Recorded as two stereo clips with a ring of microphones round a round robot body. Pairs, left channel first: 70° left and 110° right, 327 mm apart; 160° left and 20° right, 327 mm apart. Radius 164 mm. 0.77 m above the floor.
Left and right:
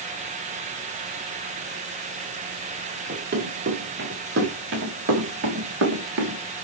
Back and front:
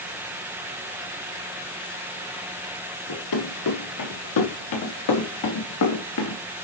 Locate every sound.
3.1 s running footsteps: 175° right, 5 m; by 6.4 s 160° right, 2.5 m